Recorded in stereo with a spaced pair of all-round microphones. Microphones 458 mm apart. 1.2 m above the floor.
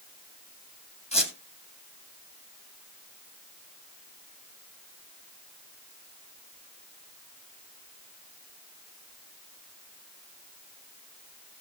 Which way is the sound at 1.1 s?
15° left (ahead or behind).